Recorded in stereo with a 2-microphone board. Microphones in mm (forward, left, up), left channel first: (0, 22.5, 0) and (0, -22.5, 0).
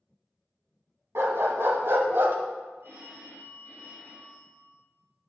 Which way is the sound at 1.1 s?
75° right (ahead or behind).